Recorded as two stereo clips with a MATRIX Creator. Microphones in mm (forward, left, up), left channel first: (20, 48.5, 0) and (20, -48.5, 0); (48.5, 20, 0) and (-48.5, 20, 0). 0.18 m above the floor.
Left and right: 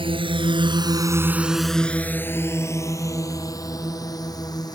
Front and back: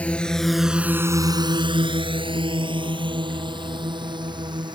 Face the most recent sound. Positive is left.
turn(degrees=140)